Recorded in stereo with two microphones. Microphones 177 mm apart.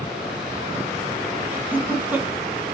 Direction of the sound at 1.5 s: 10° right (ahead or behind).